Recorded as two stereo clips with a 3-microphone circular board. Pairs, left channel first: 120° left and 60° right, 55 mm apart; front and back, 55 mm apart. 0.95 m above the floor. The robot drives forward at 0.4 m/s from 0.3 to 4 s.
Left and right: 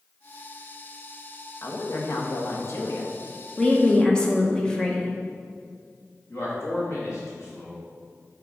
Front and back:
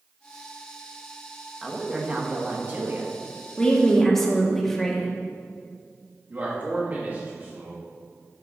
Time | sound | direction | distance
1.6 | a woman speaking | 100° left | 0.9 m
3.6 | a woman speaking | 50° left | 0.9 m
6.3 | a man speaking | 130° left | 1.7 m